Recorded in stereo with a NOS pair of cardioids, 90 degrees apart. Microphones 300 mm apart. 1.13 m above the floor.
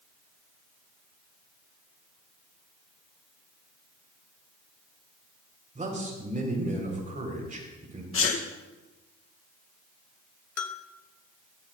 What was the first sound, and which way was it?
A man speaking, 25° right.